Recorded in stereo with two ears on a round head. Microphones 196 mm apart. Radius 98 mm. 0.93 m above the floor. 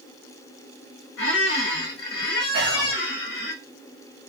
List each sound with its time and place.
1.2 s a squeak: 55° left (ahead or behind), 1.3 m
2.5 s whispering: 55° right (ahead or behind), 1.1 m